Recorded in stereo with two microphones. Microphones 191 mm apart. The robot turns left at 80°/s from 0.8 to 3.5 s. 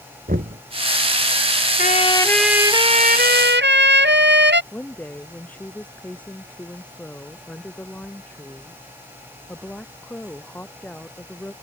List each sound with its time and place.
0.3 s knocking: 50° right (ahead or behind)
1.8 s a trumpet: 50° left; by 4.6 s 85° right
4.7 s a woman speaking: 10° left (ahead or behind)